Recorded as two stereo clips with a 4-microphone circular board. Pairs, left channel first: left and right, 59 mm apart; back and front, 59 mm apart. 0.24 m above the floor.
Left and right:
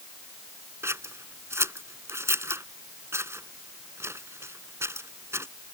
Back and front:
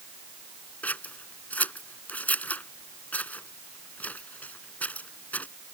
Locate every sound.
0.8 s scissors: 120° right